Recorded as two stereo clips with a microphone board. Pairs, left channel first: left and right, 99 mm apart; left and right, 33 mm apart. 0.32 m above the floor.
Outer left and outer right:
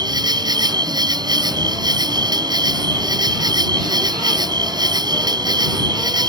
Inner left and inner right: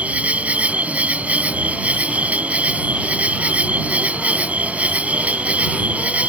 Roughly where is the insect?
Right.